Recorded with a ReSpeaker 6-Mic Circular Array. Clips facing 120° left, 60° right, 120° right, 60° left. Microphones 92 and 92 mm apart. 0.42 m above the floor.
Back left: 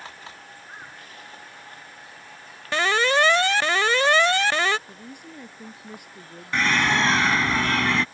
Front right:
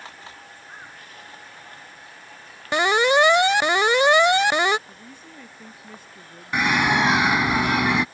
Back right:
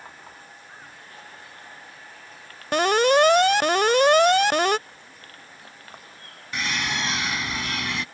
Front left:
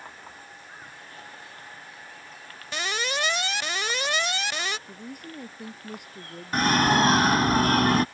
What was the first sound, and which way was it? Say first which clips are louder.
An alarm: front right 3 dB, back right 13 dB; 130° right.